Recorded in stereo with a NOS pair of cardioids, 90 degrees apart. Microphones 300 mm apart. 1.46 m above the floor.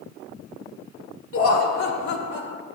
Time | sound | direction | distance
1.3 | laughter | 45° left | 0.9 m